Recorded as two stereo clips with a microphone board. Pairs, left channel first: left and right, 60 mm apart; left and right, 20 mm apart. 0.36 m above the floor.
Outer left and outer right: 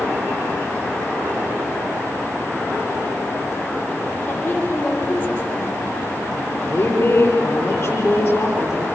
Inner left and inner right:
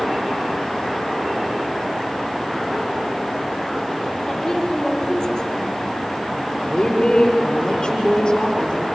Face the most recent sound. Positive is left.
turn(degrees=30)  # may be behind; listen again after turning